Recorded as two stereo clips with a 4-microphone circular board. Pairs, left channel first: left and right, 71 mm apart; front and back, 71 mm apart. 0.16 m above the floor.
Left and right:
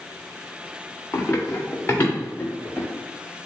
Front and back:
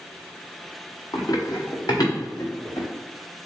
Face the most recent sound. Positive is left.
turn(degrees=30)